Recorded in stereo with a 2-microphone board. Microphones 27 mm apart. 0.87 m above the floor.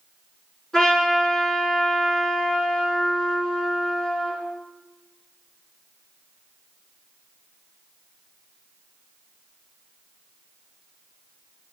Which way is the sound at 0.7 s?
20° left (ahead or behind).